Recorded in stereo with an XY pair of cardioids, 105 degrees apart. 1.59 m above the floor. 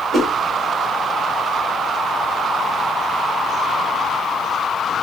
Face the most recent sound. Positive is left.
turn(degrees=-10)